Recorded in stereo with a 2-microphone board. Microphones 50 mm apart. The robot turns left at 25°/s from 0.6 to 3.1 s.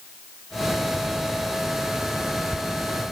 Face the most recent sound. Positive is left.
No sound to turn to.